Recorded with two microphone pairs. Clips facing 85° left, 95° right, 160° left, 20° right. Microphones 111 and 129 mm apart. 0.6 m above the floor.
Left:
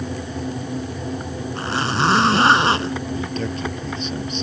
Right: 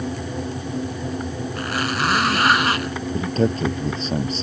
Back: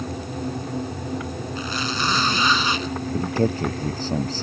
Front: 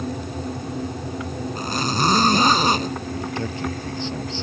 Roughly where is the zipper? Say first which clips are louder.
Left 3 dB, front 4 dB; ahead left.